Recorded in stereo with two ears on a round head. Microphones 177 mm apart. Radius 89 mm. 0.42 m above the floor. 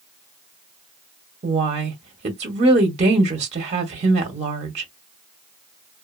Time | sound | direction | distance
1.4 | a woman speaking | 30° right (ahead or behind) | 0.9 m